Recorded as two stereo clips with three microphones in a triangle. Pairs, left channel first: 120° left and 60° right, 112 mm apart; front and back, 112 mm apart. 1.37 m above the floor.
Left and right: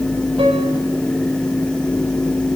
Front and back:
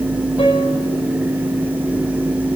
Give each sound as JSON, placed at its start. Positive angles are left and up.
{"t": 0.4, "sound": "a piano", "azimuth_deg": -30, "distance_m": 6.0}